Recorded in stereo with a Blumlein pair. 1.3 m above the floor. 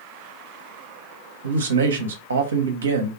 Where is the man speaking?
70° right, 0.7 m.